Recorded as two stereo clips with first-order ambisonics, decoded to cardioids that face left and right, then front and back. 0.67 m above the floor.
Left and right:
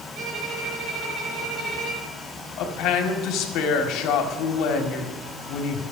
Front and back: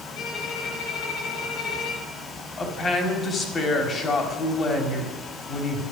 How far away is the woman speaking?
About 1.8 m.